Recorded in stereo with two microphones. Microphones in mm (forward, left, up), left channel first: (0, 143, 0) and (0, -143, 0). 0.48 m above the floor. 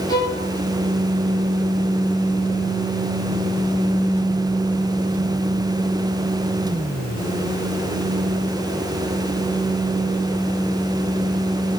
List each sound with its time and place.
0.1 s a violin: 15° left (ahead or behind), 1.4 m